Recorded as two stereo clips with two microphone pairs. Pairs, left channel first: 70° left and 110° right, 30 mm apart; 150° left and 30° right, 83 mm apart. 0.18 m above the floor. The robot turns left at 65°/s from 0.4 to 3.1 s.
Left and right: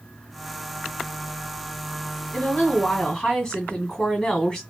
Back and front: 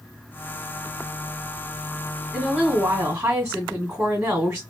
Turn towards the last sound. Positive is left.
turn(degrees=20)